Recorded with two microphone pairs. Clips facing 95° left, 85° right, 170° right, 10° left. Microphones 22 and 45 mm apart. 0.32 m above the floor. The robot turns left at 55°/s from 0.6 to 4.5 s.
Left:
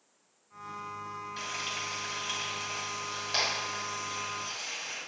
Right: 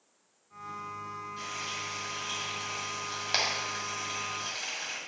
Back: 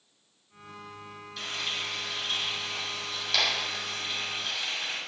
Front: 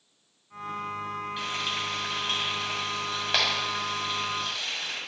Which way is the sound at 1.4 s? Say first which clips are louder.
Left 2 dB, even; 75° left.